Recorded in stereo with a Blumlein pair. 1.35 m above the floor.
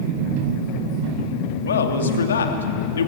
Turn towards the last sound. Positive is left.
turn(degrees=65)